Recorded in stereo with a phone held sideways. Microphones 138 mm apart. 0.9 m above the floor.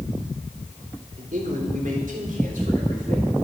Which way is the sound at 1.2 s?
75° right (ahead or behind).